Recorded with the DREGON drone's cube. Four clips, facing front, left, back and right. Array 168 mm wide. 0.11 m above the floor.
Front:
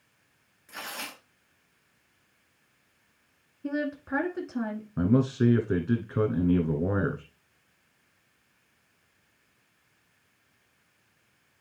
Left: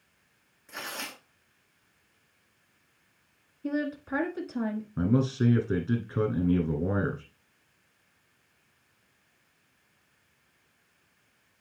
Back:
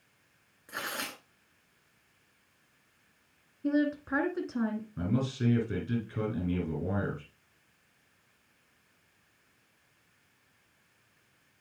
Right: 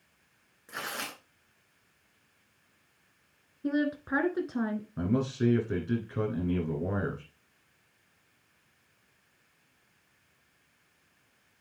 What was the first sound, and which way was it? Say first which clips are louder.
Tearing paper: right 1 dB, back 2 dB; 140° right.